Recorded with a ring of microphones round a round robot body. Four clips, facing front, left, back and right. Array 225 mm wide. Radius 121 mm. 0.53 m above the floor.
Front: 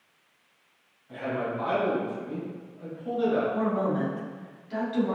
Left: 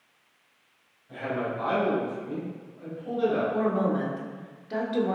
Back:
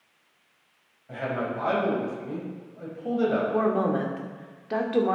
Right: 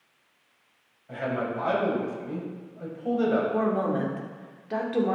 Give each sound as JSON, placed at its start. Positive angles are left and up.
{"t": 1.1, "sound": "a man speaking", "azimuth_deg": -135, "distance_m": 4.0}
{"t": 3.5, "sound": "a woman speaking", "azimuth_deg": -165, "distance_m": 1.7}